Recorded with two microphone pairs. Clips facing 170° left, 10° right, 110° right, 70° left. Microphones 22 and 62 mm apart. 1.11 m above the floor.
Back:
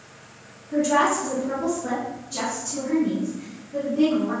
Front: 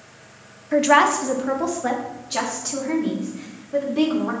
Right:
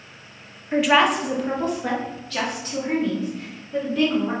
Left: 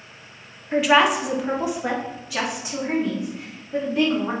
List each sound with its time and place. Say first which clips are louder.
0.7 s a woman speaking: front 4 dB, left 1 dB; 20° right, 0.7 m; by 4.3 s 5° right, 2.5 m